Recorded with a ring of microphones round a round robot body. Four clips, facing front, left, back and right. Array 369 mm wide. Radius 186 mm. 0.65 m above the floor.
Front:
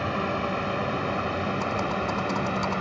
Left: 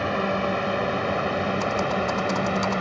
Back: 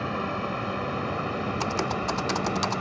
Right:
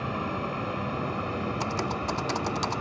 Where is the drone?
90° left.